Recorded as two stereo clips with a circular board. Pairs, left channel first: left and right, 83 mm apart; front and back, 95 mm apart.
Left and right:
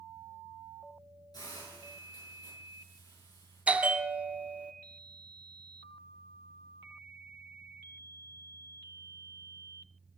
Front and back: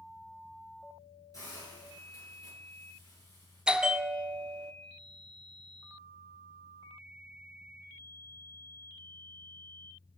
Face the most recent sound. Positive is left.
turn(degrees=-120)